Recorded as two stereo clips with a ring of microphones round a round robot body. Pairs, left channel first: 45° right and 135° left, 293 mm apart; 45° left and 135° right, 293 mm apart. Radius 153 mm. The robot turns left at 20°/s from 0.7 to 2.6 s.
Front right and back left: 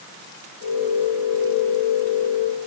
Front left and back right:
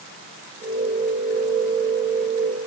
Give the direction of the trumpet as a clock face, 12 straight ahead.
No trumpet in this recording.